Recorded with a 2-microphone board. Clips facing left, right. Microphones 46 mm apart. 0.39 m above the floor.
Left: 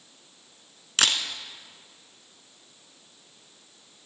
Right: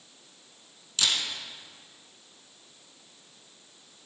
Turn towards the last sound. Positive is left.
turn(degrees=65)  # may be behind; listen again after turning